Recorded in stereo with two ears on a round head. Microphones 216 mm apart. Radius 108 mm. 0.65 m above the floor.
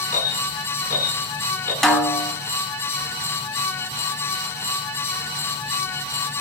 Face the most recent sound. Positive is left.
turn(degrees=0)  # may be behind; listen again after turning